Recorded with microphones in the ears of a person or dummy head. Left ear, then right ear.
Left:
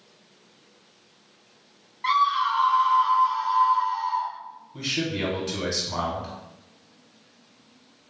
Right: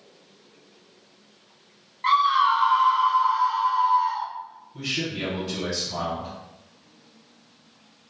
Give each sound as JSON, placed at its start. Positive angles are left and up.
{"t": 2.0, "sound": "a scream", "side_deg": -10, "distance_m": 0.8}
{"t": 4.7, "sound": "a man speaking", "side_deg": 45, "distance_m": 0.9}